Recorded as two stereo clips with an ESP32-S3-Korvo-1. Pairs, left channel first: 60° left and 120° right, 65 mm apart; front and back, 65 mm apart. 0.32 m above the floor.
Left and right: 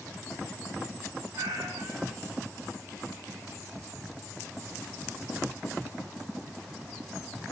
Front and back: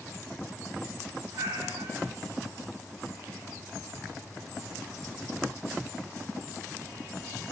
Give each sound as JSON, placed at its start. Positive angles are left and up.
{"t": 1.3, "sound": "a cat meowing", "azimuth_deg": -160, "distance_m": 2.5}